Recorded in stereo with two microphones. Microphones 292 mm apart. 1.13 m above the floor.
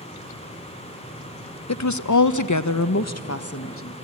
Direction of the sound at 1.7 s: 60° left (ahead or behind).